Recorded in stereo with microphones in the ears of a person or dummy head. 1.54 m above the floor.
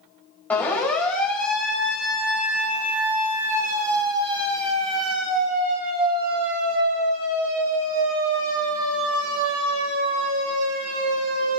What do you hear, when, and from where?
0.5 s a siren: 10° left (ahead or behind), 5.5 m; by 11.6 s 85° right, 7 m